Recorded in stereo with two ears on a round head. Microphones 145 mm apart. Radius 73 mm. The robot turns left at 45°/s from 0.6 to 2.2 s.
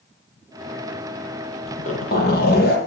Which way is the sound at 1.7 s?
40° left (ahead or behind).